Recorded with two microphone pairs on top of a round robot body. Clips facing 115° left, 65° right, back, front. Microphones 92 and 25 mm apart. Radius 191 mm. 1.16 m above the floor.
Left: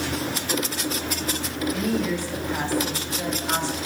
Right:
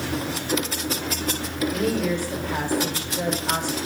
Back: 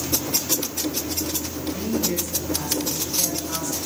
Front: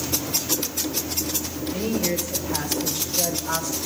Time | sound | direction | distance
1.7 | a woman speaking | 30° right | 5.5 m